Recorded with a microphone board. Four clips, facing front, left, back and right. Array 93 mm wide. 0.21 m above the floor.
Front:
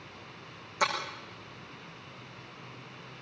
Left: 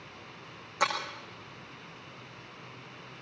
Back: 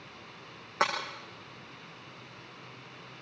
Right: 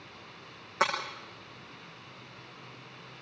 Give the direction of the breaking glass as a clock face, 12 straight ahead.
5 o'clock.